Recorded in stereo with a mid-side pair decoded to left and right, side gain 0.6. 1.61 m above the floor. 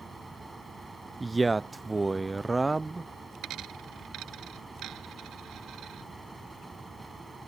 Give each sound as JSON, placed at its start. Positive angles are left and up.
{"t": 0.0, "sound": "a fan", "azimuth_deg": -15}
{"t": 1.2, "sound": "a man speaking", "azimuth_deg": -15}
{"t": 3.4, "sound": "a dropped coin", "azimuth_deg": -60}